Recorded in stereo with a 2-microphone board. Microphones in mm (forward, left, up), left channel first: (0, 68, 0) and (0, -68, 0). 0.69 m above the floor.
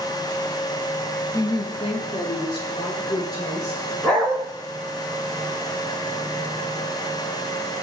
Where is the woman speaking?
25° left (ahead or behind), 0.7 m; by 3.8 s 30° left (ahead or behind), 2.5 m.